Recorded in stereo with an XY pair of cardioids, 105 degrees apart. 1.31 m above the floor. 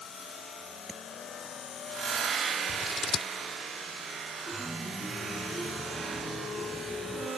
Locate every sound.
0.9 s tapping: 10° right
2.7 s scissors: 40° left
4.5 s a chime: 20° right